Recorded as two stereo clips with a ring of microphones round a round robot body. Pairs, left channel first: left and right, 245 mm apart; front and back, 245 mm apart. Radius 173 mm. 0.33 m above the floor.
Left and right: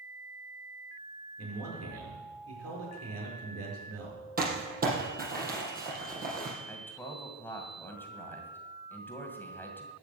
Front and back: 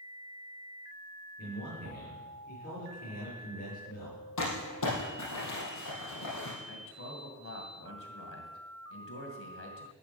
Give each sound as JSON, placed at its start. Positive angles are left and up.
{"t": 1.4, "sound": "a man speaking", "azimuth_deg": -65, "distance_m": 7.0}
{"t": 4.4, "sound": "crumpling", "azimuth_deg": -35, "distance_m": 4.5}
{"t": 6.7, "sound": "a man speaking", "azimuth_deg": 10, "distance_m": 2.5}